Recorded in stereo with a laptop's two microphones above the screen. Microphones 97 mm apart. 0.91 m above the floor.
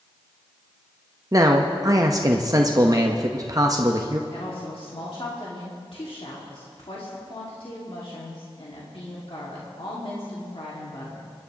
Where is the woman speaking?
65° left (ahead or behind), 2.0 m.